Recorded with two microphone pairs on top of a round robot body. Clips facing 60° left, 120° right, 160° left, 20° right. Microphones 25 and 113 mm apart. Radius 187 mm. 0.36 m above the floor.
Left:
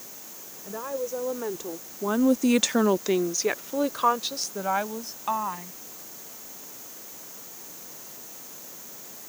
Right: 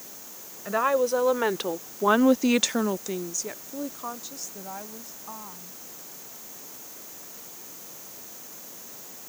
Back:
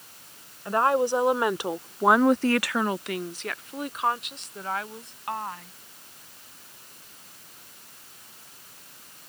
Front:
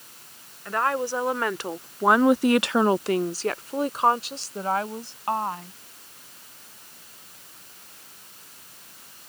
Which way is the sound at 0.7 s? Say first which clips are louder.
Right 9 dB, back 3 dB; 135° right.